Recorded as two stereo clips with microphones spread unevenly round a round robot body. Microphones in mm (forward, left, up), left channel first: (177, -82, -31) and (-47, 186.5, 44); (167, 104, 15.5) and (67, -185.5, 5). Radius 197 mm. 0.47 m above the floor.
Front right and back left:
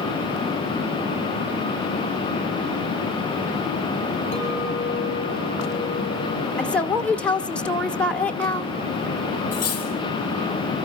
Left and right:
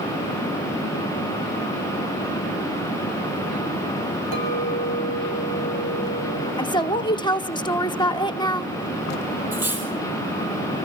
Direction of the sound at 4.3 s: 110° right.